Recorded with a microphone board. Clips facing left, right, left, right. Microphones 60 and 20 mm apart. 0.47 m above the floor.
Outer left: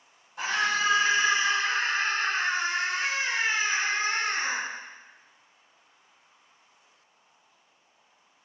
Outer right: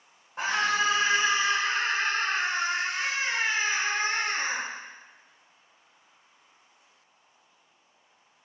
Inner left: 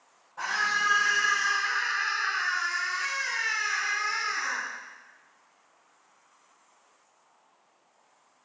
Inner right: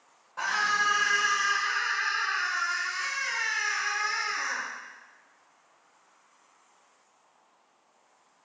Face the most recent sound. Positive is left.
turn(degrees=5)  # may be behind; listen again after turning